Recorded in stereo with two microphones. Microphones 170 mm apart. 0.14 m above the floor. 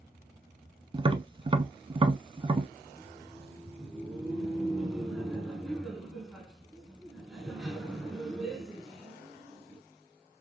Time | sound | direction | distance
0.9 | tapping | 30° right (ahead or behind) | 0.5 m
2.9 | laughter | centre (ahead or behind) | 1.4 m